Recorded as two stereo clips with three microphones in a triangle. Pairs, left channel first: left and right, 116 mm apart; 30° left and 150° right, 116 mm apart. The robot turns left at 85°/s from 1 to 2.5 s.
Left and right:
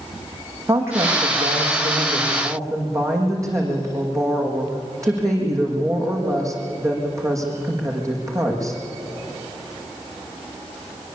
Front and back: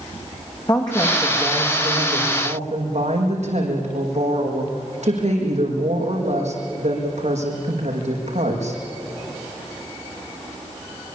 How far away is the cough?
I don't hear a cough.